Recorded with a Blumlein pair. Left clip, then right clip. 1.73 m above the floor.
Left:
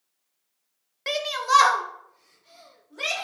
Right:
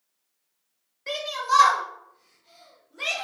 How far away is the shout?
About 1.0 m.